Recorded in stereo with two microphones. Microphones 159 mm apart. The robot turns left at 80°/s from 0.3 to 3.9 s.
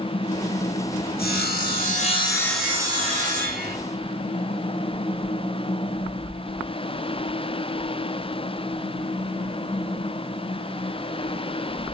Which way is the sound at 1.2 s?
110° left.